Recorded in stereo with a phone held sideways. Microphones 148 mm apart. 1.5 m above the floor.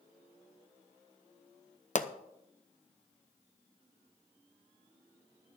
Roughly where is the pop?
Left.